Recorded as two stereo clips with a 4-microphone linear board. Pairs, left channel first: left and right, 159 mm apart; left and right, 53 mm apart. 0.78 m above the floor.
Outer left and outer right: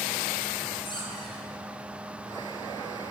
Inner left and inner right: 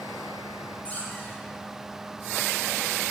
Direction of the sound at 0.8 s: 30° left (ahead or behind).